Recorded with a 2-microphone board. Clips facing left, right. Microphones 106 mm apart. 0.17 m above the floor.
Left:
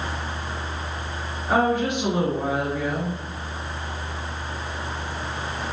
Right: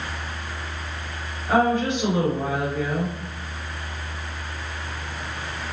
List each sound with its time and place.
1.5 s a woman speaking: 15° left (ahead or behind), 1.9 m